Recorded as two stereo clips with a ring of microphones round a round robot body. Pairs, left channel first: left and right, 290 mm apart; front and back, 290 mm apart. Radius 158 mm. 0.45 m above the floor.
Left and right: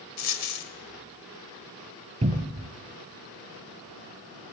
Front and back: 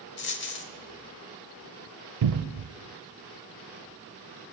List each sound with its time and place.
0.2 s a dropped coin: 55° left, 1.0 m
2.2 s a cupboard door: 160° right, 0.6 m